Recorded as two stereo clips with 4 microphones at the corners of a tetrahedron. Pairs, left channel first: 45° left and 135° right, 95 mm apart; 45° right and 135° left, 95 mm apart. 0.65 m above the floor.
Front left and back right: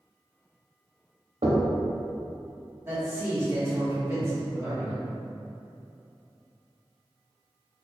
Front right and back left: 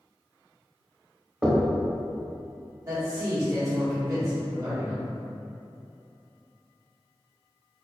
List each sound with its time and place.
1.4 s knocking: 145° right, 0.8 m
2.9 s a man speaking: 170° left, 1.6 m